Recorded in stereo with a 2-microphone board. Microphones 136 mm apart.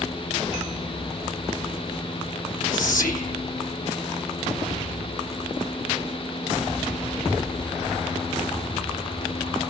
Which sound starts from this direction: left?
Whispering, at 2.7 s.